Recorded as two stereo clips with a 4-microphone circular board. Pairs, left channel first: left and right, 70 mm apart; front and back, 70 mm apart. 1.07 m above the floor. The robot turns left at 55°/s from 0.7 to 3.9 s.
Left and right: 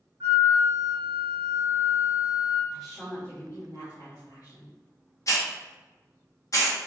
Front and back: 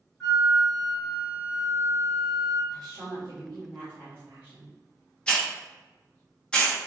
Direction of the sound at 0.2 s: 80° right.